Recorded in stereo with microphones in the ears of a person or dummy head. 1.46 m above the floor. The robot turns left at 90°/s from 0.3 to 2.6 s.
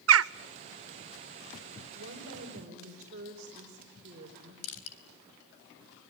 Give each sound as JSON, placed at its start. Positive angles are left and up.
{"t": 0.1, "sound": "a bird", "side_deg": -70, "distance_m": 0.6}
{"t": 1.9, "sound": "a woman speaking", "azimuth_deg": -75, "distance_m": 4.5}
{"t": 4.6, "sound": "crushing", "side_deg": 75, "distance_m": 4.0}